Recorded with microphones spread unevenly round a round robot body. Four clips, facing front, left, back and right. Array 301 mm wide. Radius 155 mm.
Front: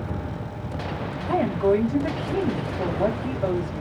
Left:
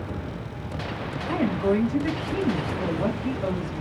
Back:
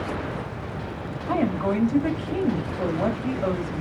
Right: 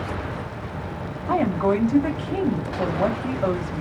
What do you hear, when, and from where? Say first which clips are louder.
1.3 s a woman speaking: right 3 dB, front 3 dB; 100° right, 1.3 m